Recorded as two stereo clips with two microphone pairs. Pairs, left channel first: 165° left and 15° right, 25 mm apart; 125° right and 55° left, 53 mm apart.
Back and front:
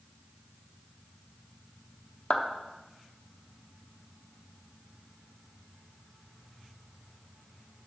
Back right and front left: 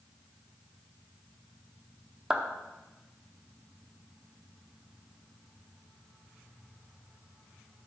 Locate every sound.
2.3 s a clap: 125° left, 0.9 m